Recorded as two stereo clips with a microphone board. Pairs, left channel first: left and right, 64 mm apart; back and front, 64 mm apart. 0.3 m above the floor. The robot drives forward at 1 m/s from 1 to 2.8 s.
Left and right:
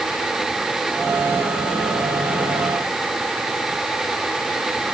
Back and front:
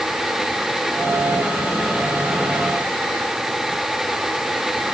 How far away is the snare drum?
No snare drum in this recording.